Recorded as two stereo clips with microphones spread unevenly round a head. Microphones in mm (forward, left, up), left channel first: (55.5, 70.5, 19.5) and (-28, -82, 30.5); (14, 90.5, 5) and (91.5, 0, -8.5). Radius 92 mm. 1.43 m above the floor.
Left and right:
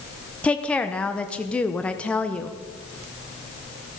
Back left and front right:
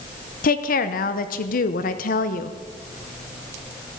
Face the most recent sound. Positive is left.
turn(degrees=145)